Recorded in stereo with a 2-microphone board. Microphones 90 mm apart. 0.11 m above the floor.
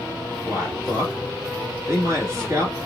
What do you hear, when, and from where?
0.5 s a man speaking: 35° right (ahead or behind), 1.9 m